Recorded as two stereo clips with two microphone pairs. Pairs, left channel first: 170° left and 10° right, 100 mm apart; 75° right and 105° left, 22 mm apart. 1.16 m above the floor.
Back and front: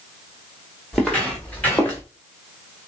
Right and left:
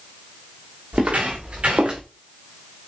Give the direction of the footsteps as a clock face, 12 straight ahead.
9 o'clock.